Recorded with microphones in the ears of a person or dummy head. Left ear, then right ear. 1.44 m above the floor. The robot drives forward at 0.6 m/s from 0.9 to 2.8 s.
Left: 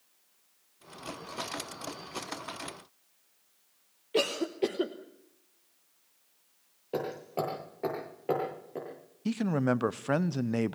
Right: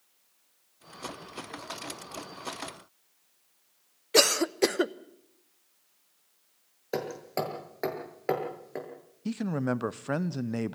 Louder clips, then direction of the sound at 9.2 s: Left 2 dB; 10° left (ahead or behind).